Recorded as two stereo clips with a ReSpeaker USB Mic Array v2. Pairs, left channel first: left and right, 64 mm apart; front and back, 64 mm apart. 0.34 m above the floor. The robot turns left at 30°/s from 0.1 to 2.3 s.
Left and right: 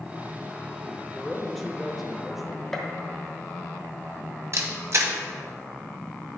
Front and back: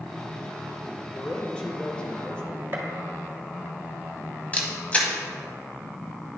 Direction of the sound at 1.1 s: 20° left.